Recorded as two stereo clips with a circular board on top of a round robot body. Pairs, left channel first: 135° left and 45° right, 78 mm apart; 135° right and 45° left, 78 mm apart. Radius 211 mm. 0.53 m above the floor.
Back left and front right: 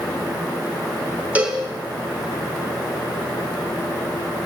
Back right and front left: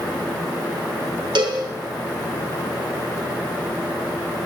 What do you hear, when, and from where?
1.4 s a cowbell: 25° left, 4.5 m